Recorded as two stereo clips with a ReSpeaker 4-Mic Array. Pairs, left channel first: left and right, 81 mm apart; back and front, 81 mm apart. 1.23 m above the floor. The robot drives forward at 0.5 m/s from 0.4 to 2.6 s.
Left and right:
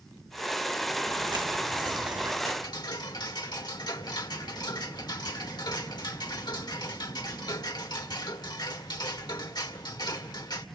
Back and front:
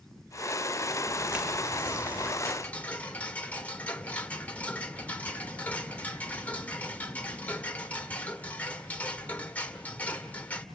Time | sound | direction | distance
1.1 | footsteps | 80° right | 4 m
2.5 | ticking | 105° left | 1.8 m